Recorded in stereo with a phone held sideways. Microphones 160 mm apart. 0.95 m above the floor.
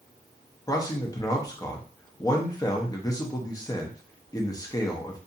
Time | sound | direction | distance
0.7 | a man speaking | 25° left (ahead or behind) | 0.6 m